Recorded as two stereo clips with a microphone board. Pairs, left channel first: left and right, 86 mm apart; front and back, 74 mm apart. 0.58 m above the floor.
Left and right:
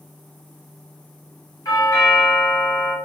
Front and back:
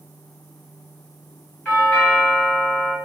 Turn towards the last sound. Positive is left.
turn(degrees=60)